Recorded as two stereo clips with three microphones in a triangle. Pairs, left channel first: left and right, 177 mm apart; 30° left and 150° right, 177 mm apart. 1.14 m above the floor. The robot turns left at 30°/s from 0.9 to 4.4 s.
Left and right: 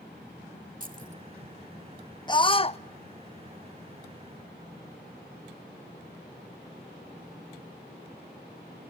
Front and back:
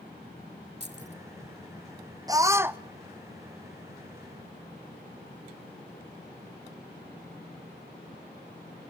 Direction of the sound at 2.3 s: 150° left.